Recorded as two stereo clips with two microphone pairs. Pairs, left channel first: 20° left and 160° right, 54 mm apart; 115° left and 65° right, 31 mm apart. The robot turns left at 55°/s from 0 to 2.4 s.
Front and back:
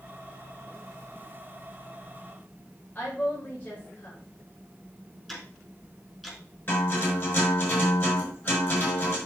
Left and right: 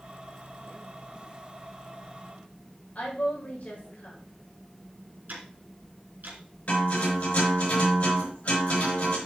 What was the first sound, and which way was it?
A woman speaking, 75° left.